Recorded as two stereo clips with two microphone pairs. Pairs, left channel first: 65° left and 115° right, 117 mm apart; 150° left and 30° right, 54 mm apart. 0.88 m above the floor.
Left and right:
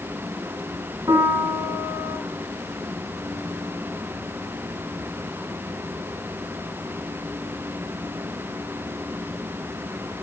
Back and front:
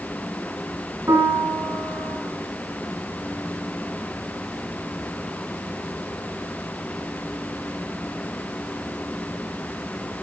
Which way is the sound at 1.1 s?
55° right.